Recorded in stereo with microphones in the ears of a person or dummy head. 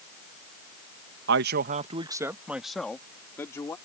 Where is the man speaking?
70° right (ahead or behind); by 3.8 s 15° left (ahead or behind).